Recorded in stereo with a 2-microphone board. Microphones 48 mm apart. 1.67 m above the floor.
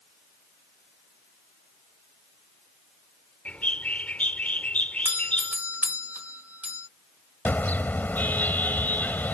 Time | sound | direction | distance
3.5 | a bird | 30° left (ahead or behind) | ?
5.0 | a doorbell | 30° right (ahead or behind) | ?
7.5 | a car horn | 40° left (ahead or behind) | ?